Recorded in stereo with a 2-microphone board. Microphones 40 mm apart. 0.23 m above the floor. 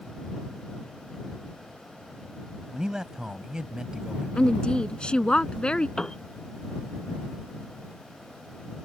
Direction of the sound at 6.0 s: 15° left (ahead or behind).